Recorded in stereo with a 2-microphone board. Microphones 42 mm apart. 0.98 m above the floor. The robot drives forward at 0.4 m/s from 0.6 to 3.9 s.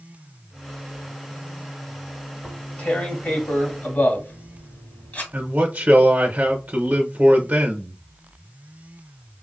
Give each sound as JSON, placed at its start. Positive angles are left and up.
{"t": 2.4, "sound": "tearing paper", "side_deg": 35, "distance_m": 1.3}
{"t": 5.3, "sound": "a man speaking", "side_deg": -35, "distance_m": 0.7}